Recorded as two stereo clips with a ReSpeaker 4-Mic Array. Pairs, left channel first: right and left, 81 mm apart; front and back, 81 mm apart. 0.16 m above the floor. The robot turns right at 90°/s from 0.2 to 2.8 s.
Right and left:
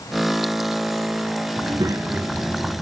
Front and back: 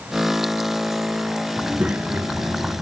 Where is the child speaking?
85° left, 1.1 m; by 2.8 s 165° right, 1.1 m.